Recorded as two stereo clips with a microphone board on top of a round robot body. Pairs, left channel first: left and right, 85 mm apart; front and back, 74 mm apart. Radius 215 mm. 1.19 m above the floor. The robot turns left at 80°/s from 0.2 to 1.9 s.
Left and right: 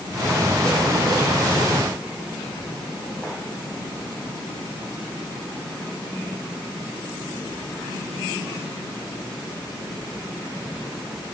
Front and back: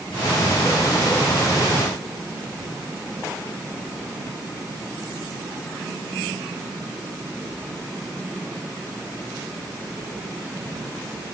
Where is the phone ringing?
I don't hear a phone ringing.